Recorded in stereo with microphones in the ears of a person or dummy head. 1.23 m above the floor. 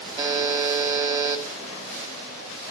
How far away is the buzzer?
About 1.7 m.